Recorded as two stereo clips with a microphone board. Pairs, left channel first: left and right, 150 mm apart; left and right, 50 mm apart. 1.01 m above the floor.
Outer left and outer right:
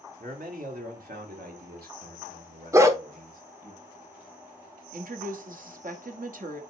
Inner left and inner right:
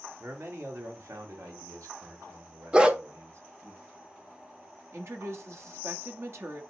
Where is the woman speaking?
65° right (ahead or behind), 1.5 m.